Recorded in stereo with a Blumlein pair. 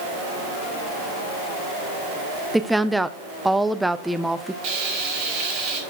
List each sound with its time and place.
2.5 s a woman speaking: 5° right, 0.6 m
4.6 s frying: 45° right, 3.5 m